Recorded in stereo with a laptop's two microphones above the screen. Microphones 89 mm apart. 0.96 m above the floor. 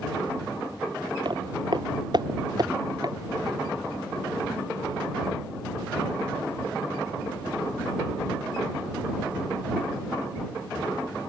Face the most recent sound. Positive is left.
turn(degrees=-50)  # may be behind; listen again after turning